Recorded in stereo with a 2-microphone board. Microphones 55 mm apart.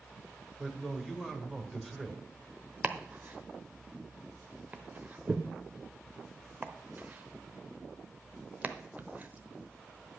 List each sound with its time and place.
0.6 s a man speaking: centre (ahead or behind), 1.9 m
2.8 s chopping: 30° right (ahead or behind), 0.9 m